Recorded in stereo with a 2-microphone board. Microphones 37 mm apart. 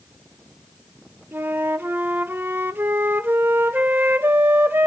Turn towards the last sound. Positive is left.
turn(degrees=-70)  # may be behind; listen again after turning